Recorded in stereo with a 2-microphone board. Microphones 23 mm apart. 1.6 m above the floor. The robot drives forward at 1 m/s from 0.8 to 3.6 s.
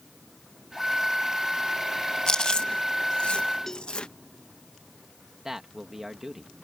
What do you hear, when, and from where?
2.3 s chewing: 35° left (ahead or behind); by 4.1 s 50° left (ahead or behind)
3.7 s a cowbell: 20° left (ahead or behind)
5.5 s a man speaking: 15° right (ahead or behind)